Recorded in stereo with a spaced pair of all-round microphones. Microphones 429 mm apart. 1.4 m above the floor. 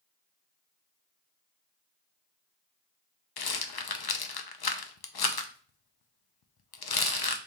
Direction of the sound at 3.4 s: 60° left (ahead or behind).